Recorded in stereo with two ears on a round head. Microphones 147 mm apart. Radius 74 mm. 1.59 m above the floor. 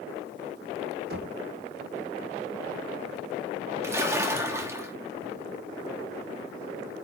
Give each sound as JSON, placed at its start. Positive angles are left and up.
{"t": 1.1, "sound": "knocking", "side_deg": -65, "distance_m": 1.7}
{"t": 3.8, "sound": "a splash", "side_deg": -15, "distance_m": 1.4}